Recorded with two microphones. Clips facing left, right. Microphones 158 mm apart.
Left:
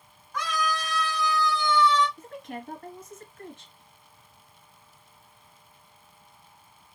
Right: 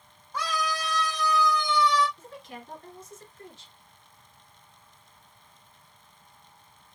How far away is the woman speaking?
About 2.0 m.